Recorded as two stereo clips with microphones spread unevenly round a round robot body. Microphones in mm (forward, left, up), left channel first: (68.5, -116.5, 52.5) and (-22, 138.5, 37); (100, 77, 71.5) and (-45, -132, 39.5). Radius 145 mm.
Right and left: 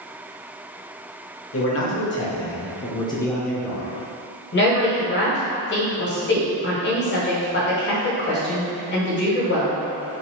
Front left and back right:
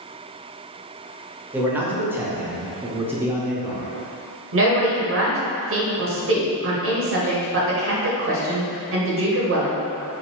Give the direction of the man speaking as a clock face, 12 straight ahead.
2 o'clock.